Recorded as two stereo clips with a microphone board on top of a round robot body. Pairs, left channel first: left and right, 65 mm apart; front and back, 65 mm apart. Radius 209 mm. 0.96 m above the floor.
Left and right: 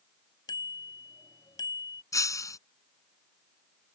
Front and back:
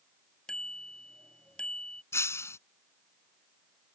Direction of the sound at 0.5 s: 80° left.